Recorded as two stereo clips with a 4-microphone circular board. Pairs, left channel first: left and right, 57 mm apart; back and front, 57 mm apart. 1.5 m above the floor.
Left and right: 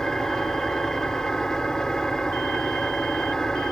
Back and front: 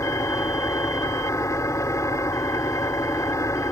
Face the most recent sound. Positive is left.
turn(degrees=170)